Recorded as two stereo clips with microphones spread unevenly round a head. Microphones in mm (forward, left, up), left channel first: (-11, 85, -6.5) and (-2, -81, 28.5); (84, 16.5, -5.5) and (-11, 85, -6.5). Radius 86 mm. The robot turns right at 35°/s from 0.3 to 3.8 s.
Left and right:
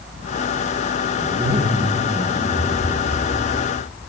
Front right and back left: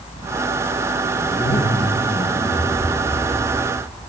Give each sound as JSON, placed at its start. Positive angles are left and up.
{"t": 1.2, "sound": "a zipper", "azimuth_deg": -95, "distance_m": 1.1}